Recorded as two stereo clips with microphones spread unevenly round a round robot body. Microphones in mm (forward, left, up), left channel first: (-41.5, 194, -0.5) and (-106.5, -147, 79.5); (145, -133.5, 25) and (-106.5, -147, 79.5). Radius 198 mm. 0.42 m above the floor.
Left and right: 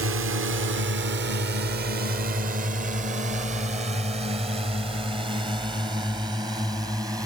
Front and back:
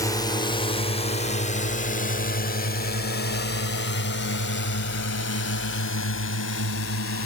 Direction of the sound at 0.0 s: 50° right.